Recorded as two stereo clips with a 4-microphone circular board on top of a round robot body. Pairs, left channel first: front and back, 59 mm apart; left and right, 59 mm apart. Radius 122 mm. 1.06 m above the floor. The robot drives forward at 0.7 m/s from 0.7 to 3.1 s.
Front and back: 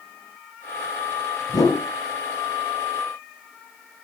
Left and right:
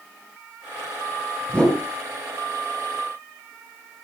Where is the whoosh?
15° left, 6 m; by 1.8 s 20° left, 6 m.